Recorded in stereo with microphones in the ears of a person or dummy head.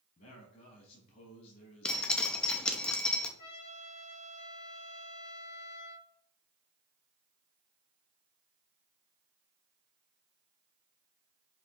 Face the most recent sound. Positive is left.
turn(degrees=55)  # may be behind; listen again after turning